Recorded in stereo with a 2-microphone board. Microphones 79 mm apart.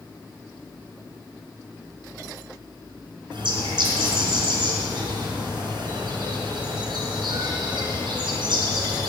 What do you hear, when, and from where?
3.3 s a bird: 80° right, 3 m